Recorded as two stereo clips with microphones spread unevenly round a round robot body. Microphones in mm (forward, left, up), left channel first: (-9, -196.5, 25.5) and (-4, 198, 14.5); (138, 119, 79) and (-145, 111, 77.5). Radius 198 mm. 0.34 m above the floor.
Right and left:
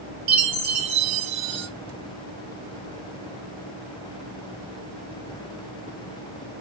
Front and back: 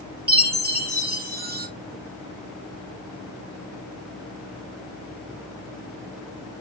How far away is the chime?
About 1.0 m.